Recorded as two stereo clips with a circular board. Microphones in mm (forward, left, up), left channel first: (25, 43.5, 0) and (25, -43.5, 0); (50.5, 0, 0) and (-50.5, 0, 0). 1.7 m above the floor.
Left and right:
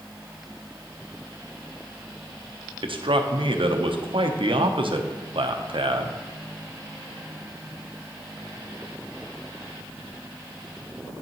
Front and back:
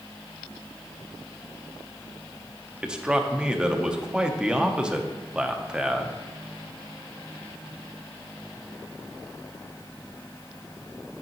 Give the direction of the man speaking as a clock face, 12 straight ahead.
3 o'clock.